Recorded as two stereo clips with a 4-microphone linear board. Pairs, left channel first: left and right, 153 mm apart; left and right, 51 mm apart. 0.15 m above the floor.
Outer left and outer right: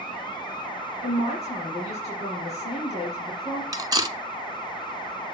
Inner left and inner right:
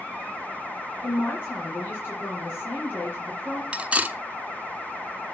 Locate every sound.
1.0 s a man speaking: 45° left (ahead or behind), 3 m
3.7 s cutlery clinking: 25° right (ahead or behind), 0.7 m